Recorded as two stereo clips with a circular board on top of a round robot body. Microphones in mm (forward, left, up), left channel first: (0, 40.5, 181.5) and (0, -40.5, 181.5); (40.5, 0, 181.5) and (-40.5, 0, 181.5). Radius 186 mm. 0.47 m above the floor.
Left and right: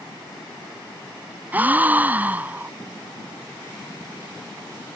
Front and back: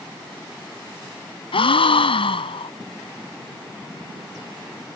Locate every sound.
1.5 s a gasp: 20° right